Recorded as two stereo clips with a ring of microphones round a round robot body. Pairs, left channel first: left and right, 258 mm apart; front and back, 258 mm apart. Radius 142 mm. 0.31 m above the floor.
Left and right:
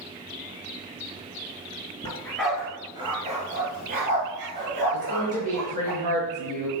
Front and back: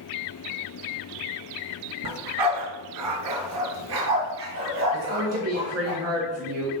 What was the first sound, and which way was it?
A dog barking, 165° left.